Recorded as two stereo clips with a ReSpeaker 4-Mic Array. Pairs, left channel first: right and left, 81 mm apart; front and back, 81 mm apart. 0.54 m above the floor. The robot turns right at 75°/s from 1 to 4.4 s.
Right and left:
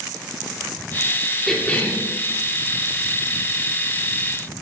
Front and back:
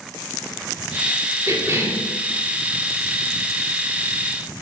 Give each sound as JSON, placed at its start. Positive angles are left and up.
{"t": 1.5, "sound": "a cough", "azimuth_deg": -175, "distance_m": 1.6}